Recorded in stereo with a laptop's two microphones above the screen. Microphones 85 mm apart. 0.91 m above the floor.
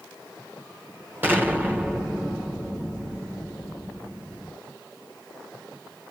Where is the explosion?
25° right (ahead or behind), 1.2 m.